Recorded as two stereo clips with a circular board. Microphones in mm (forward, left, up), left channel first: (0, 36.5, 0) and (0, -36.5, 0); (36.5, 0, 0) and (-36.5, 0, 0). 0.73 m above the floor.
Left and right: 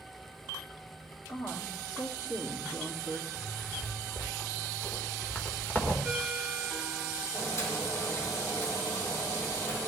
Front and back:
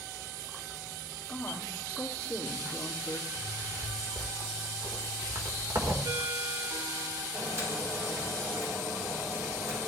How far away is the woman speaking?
About 1.7 m.